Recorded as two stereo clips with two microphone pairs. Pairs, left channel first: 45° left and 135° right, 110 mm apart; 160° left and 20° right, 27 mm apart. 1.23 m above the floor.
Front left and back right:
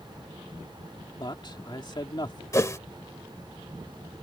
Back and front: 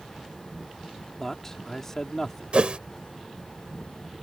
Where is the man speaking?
90° left.